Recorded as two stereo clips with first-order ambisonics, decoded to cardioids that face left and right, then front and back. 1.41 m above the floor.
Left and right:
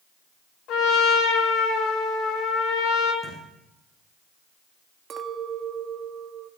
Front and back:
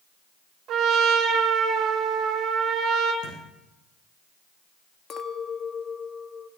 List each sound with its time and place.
0.7 s a trumpet: 130° left, 3.5 m
3.2 s a thud: 5° left, 8.5 m
5.1 s a clink: 45° right, 1.0 m